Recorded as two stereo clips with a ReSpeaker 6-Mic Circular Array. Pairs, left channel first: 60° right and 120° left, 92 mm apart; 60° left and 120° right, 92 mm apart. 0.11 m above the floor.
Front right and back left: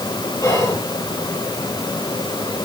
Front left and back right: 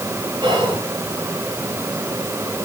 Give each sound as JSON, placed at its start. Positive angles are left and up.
{"t": 0.4, "sound": "whispering", "azimuth_deg": -110, "distance_m": 3.0}